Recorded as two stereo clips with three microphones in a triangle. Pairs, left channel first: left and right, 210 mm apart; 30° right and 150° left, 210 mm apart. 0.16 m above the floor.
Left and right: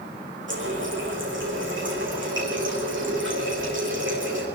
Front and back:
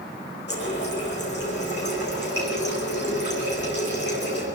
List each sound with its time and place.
0.5 s a running tap: 65° right, 8 m